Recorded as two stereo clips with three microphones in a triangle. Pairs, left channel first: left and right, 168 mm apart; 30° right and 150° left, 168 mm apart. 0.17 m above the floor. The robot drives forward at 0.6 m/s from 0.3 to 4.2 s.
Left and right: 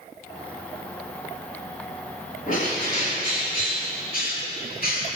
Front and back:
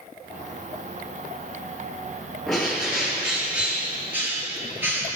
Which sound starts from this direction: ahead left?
A bird, at 2.5 s.